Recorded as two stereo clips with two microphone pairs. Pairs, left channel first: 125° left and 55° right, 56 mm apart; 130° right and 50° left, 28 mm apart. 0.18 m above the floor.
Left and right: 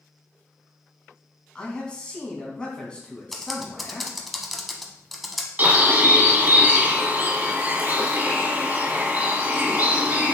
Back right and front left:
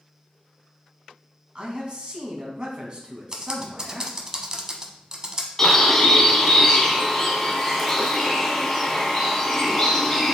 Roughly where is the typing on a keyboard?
Ahead left.